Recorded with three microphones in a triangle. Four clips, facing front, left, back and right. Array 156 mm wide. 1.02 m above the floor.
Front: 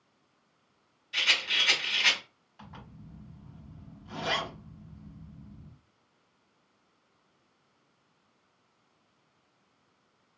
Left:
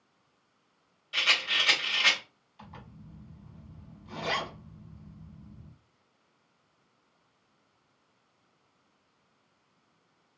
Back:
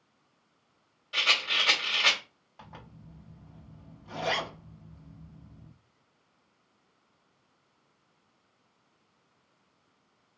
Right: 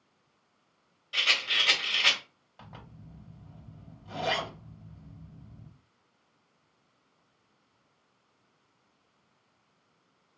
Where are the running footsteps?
I don't hear running footsteps.